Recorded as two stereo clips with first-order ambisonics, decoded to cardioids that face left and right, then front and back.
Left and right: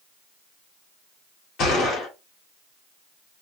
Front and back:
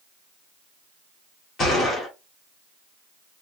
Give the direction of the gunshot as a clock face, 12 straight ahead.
10 o'clock.